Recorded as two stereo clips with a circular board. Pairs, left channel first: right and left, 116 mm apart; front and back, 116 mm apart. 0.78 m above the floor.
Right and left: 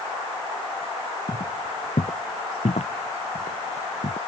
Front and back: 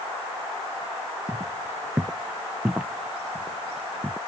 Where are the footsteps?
110° right; by 4.2 s 90° right.